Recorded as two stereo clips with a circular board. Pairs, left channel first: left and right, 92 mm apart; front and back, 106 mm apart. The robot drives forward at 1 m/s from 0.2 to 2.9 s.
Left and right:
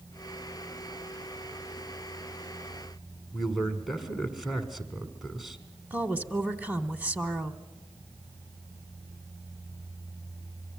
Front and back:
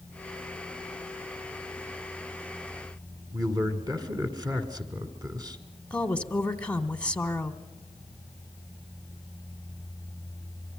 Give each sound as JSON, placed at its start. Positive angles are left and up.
{"t": 3.3, "sound": "a man speaking", "azimuth_deg": -175, "distance_m": 1.8}
{"t": 5.9, "sound": "a woman speaking", "azimuth_deg": -60, "distance_m": 1.0}